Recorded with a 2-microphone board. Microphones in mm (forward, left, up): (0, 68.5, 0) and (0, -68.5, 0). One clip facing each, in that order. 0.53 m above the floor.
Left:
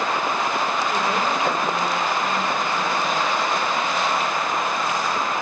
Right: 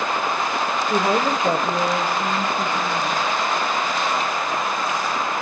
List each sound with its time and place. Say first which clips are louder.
0.9 s a woman speaking: right 3 dB; 40° right (ahead or behind), 1.7 m